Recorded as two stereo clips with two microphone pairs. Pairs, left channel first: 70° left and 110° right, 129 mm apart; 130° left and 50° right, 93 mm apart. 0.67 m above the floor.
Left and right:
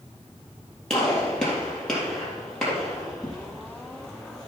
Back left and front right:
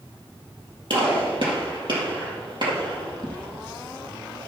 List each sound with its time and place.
0.9 s a gunshot: 15° right, 3.5 m